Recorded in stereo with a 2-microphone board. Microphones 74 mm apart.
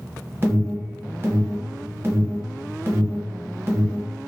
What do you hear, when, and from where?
0.4 s an alarm: 35° right (ahead or behind), 0.9 m